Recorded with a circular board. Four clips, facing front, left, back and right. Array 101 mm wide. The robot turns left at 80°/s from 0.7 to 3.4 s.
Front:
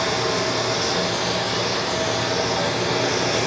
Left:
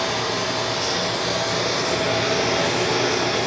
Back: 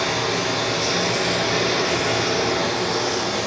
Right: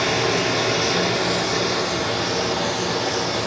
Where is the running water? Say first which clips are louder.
Right 3 dB, front 1 dB; 105° right, 0.7 m; by 3.5 s 40° left, 0.7 m.